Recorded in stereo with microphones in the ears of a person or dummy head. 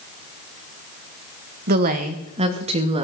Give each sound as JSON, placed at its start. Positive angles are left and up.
{"t": 1.7, "sound": "a woman speaking", "side_deg": -50, "distance_m": 1.4}